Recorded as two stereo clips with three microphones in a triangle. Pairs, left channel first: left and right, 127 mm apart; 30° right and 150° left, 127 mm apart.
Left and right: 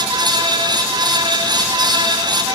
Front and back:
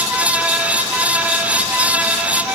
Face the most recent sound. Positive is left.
No sound to turn to.